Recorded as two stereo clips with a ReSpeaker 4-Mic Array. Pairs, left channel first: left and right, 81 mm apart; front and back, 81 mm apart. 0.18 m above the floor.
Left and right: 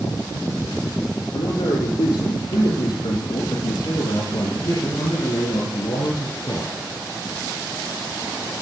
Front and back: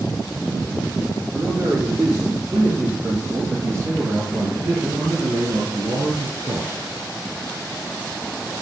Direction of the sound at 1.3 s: 125° left.